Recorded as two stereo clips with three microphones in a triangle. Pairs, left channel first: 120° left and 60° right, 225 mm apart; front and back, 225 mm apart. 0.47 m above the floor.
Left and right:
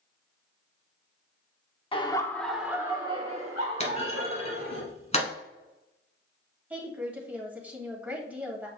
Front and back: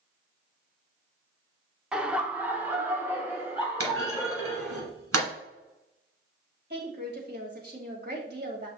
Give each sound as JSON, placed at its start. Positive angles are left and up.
{"t": 1.9, "sound": "laughter", "azimuth_deg": 100, "distance_m": 0.8}
{"t": 3.8, "sound": "a clunk", "azimuth_deg": 180, "distance_m": 1.6}
{"t": 6.7, "sound": "a woman speaking", "azimuth_deg": -145, "distance_m": 2.0}